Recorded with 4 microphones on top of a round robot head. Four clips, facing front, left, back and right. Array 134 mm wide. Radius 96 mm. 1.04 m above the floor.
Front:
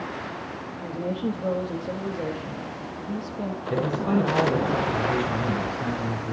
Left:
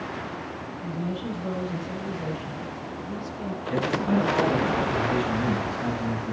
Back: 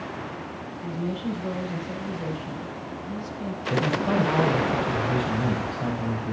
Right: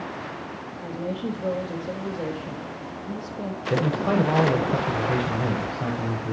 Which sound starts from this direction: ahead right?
A woman speaking, at 0.8 s.